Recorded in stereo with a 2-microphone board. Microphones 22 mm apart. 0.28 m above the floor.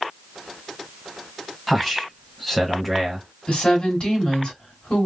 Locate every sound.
1.7 s a man speaking: 5° left (ahead or behind), 1.4 m
3.5 s a woman speaking: 50° left (ahead or behind), 2.5 m